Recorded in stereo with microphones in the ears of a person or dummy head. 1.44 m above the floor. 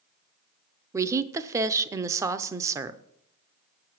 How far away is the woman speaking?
About 0.6 m.